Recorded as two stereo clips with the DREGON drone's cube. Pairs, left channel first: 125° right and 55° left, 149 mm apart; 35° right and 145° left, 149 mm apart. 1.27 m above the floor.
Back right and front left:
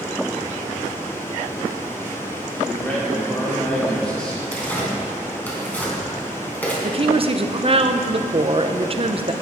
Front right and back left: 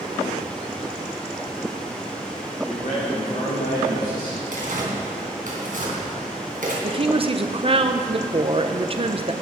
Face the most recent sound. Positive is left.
turn(degrees=100)